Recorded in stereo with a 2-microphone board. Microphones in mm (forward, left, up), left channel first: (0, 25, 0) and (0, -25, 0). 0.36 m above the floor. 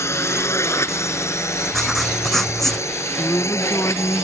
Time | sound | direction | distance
0.0 | a drone | 70° left (ahead or behind) | ?
1.7 | writing | 5° left (ahead or behind) | ?
3.2 | a woman speaking | 65° left (ahead or behind) | ?